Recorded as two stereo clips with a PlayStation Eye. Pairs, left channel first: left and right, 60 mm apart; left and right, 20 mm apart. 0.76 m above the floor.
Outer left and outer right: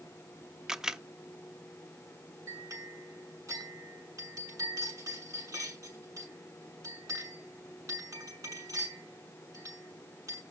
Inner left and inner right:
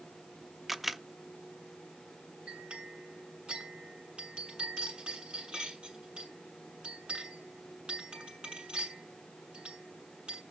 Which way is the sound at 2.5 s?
65° right (ahead or behind).